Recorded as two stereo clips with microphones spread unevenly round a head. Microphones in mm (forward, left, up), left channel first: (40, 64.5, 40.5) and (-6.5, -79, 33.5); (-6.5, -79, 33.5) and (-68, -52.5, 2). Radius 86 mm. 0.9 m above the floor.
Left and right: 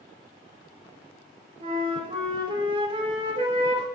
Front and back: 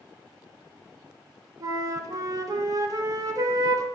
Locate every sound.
1.6 s a flute: 160° right, 0.8 m